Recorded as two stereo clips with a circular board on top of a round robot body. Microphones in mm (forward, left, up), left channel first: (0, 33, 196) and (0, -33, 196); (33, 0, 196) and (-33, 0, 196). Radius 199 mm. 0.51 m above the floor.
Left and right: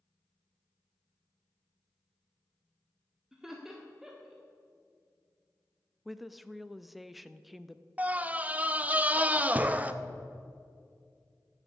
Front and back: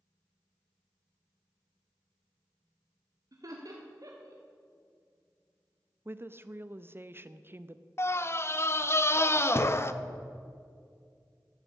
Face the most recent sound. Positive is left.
turn(degrees=-30)